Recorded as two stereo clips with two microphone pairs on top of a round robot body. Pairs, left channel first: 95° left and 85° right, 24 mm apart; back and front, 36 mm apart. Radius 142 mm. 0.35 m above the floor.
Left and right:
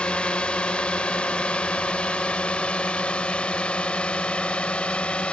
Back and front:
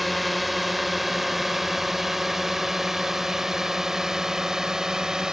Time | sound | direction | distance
0.0 | a drone | 95° left | ?